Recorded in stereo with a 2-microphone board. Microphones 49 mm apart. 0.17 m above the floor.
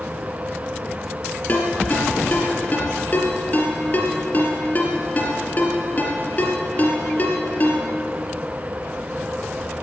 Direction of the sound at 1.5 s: 40° left (ahead or behind).